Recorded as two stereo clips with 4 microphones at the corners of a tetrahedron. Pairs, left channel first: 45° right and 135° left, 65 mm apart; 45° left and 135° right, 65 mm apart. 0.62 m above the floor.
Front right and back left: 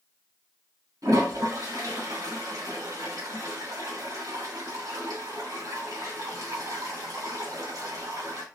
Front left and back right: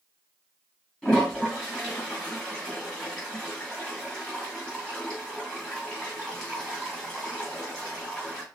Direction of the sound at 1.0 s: 125° left.